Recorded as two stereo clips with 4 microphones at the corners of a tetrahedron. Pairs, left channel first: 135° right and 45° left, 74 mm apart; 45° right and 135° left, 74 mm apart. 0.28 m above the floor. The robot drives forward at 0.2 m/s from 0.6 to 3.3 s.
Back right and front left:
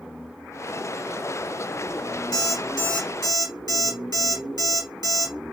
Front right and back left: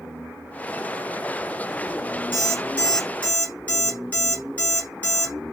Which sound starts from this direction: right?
An alarm clock, at 2.3 s.